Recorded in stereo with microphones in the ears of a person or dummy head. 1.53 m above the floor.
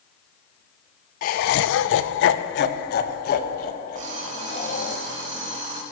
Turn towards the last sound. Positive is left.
turn(degrees=-50)  # may be behind; listen again after turning